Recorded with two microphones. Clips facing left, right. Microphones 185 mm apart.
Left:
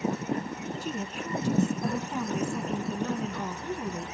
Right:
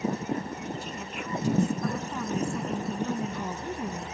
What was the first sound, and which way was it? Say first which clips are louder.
A woman speaking: left 3 dB; 40° left (ahead or behind).